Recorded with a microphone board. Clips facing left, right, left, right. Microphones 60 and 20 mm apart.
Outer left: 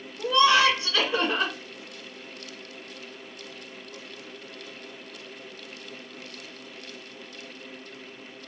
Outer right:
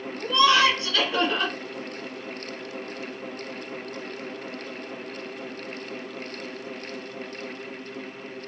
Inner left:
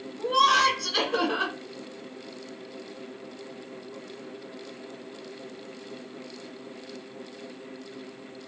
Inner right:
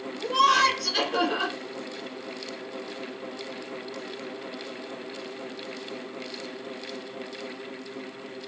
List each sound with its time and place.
0.2 s laughter: 25° left (ahead or behind), 1.7 m